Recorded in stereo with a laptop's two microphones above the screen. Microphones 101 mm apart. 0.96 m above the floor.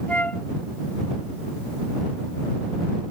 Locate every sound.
0.1 s a flute: 15° left (ahead or behind)